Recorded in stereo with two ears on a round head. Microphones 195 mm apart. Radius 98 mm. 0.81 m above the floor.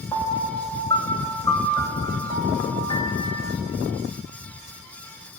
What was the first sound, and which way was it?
A piano, 20° left (ahead or behind).